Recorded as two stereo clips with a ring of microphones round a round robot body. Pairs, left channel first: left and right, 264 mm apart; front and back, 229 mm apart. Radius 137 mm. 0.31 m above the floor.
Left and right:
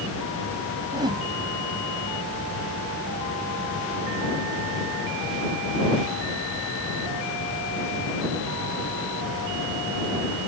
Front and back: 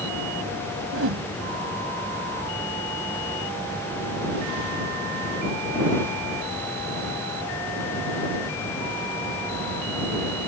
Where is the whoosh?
165° right.